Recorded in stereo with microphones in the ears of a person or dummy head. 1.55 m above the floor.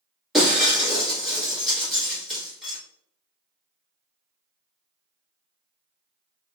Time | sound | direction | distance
0.3 | breaking glass | centre (ahead or behind) | 1.5 m